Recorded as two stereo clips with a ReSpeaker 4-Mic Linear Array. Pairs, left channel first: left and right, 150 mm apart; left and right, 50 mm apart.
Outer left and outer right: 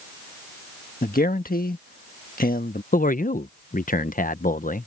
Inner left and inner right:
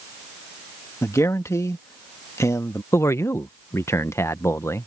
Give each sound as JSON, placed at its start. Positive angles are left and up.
{"t": 1.0, "sound": "a man speaking", "side_deg": 75}
{"t": 2.9, "sound": "a man speaking", "side_deg": 65}